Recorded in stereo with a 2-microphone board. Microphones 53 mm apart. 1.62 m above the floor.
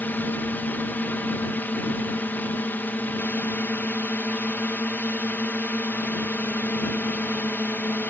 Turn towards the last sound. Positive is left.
turn(degrees=40)  # may be behind; listen again after turning